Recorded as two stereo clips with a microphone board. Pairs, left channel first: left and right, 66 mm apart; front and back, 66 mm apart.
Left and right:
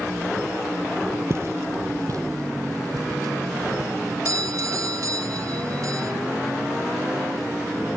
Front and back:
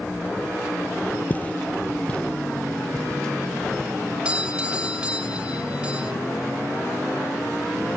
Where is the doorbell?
110° right, 2 m.